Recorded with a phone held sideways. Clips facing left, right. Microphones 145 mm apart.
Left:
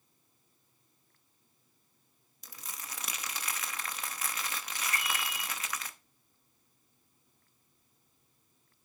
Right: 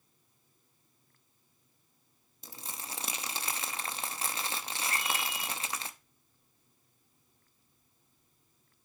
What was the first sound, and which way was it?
Crumpling, 30° right (ahead or behind).